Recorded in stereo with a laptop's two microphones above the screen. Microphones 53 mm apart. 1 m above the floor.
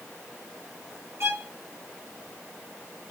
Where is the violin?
55° right (ahead or behind), 1.4 m.